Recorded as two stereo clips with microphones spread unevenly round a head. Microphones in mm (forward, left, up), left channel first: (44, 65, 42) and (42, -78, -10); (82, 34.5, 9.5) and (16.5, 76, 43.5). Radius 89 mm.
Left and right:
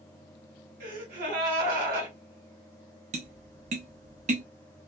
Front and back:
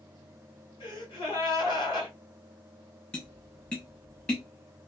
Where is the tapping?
105° right, 0.7 m.